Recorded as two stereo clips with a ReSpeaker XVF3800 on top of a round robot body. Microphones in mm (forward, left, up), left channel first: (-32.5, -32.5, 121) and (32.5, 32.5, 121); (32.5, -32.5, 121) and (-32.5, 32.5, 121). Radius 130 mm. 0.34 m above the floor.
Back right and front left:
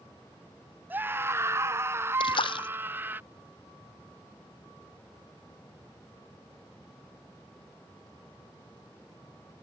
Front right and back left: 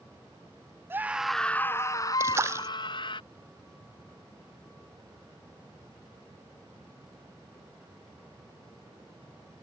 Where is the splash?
165° right.